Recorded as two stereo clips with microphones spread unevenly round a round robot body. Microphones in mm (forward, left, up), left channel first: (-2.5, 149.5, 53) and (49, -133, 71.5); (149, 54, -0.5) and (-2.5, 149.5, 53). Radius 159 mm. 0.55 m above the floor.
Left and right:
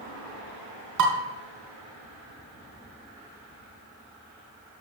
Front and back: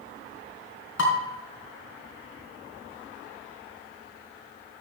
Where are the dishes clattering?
45° right, 4 m.